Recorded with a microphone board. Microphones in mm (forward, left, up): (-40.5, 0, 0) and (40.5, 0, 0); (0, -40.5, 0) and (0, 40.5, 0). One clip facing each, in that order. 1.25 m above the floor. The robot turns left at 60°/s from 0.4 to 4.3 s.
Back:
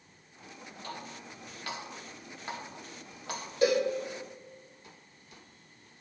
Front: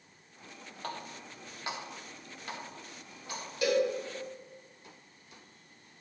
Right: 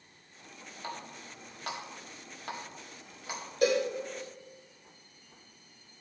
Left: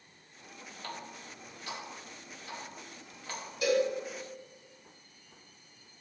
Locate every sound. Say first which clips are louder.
0.8 s a running tap: front 2 dB, right 2 dB; 20° right, 1.7 m; by 3.4 s 175° right, 1.7 m
3.6 s a cowbell: back 2 dB, right 1 dB; 125° right, 2.5 m; by 3.9 s 140° right, 2.5 m